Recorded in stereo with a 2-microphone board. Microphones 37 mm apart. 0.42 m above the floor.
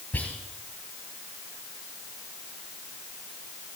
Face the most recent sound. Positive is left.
turn(degrees=60)  # may be behind; listen again after turning